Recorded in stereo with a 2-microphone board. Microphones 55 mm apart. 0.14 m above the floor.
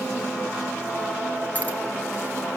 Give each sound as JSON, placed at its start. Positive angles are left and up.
{"t": 1.6, "sound": "keys jangling", "side_deg": 25, "distance_m": 1.9}